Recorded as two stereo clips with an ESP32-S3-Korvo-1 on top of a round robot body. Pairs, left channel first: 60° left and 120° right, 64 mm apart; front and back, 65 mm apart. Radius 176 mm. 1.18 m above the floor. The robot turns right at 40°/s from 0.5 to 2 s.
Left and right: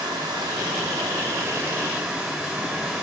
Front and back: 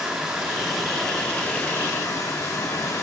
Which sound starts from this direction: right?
Running water, at 0.0 s.